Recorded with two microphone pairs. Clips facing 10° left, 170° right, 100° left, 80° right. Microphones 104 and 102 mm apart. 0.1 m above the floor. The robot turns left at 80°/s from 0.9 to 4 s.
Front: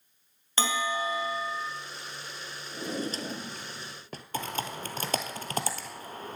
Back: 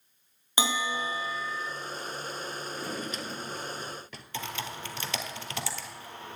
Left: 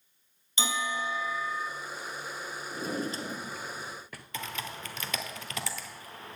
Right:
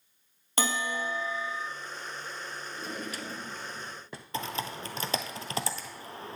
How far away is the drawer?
About 1.0 m.